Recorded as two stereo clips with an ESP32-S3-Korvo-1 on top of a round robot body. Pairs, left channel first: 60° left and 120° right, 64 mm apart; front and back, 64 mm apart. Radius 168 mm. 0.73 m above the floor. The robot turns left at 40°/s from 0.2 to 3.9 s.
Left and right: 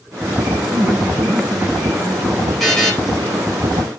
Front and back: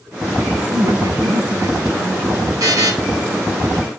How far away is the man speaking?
About 7.5 m.